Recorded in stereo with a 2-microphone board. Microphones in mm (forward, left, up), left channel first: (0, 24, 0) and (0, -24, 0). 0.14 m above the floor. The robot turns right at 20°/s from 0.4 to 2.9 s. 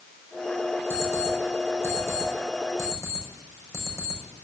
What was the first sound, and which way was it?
An alarm clock, 50° left (ahead or behind).